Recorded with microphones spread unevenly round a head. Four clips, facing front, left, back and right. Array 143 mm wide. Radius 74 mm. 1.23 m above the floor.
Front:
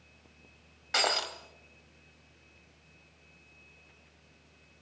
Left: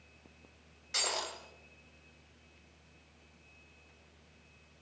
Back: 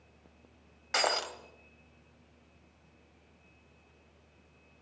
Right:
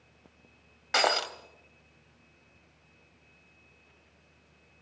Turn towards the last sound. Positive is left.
turn(degrees=-70)